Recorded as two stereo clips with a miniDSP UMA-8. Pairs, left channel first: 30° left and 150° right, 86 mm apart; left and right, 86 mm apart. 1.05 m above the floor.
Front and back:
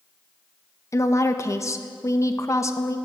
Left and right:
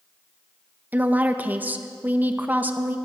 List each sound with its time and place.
0.9 s a woman speaking: 20° right, 0.8 m